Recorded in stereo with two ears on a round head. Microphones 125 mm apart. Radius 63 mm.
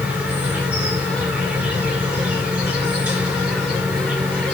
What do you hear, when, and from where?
0.0 s an insect: 10° right (ahead or behind), 3 m